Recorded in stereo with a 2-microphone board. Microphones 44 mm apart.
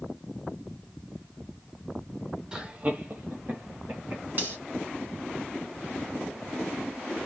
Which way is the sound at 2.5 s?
20° right (ahead or behind).